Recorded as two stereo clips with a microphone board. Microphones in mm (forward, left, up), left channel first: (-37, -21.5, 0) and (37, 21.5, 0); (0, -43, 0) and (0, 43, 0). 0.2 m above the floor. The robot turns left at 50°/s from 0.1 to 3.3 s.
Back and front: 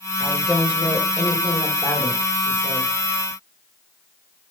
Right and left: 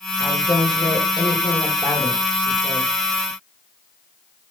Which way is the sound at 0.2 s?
35° right.